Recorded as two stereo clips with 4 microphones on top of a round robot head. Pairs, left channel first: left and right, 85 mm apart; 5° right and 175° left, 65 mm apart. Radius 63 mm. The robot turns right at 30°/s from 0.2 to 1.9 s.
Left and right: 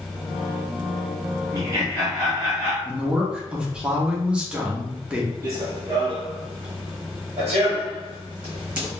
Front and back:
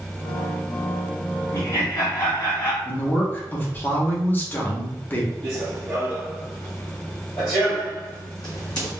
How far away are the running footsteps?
About 1.0 m.